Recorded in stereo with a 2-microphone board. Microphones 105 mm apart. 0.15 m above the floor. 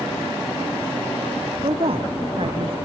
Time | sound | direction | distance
1.6 | a woman speaking | 60° right (ahead or behind) | ?